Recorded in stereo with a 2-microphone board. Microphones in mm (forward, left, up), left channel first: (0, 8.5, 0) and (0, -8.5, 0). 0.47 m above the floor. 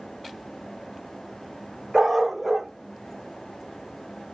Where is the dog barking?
20° right (ahead or behind), 1.2 m.